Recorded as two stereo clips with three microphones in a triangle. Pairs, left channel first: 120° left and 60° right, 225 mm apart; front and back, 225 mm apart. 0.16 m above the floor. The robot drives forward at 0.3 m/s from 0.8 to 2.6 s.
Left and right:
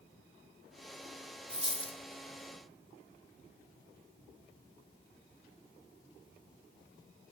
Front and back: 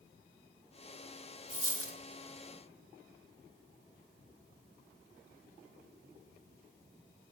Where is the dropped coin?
175° right, 0.8 m.